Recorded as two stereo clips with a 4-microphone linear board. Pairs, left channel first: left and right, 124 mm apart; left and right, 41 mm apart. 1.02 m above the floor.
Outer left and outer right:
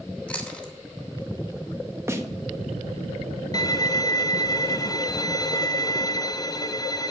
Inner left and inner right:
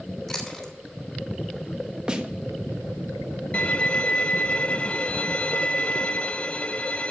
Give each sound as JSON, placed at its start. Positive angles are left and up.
{"t": 0.3, "sound": "chewing", "side_deg": 10, "distance_m": 3.0}
{"t": 2.1, "sound": "a snare drum", "side_deg": -20, "distance_m": 1.4}
{"t": 3.5, "sound": "a violin", "side_deg": 30, "distance_m": 0.5}